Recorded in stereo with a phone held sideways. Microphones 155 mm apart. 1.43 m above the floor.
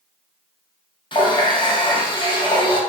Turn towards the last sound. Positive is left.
turn(degrees=30)  # may be behind; listen again after turning